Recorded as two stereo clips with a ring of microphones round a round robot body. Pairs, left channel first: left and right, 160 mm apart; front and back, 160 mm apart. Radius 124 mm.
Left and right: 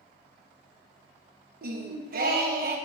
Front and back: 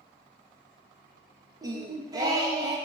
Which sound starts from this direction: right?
Singing, at 1.6 s.